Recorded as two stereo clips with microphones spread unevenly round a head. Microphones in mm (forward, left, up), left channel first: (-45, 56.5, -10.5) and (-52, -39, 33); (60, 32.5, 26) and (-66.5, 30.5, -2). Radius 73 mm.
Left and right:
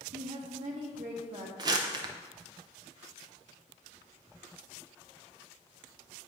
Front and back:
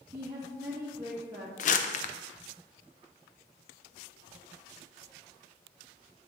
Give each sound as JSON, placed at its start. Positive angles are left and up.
{"t": 0.1, "sound": "a woman speaking", "azimuth_deg": -105, "distance_m": 1.3}
{"t": 1.6, "sound": "crumpling", "azimuth_deg": -25, "distance_m": 0.5}